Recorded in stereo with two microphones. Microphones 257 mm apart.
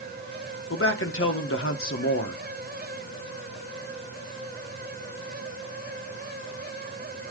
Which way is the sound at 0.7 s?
55° left (ahead or behind).